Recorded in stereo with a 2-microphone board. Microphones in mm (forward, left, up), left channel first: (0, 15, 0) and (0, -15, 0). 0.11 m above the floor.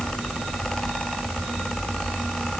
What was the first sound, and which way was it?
Only background noise.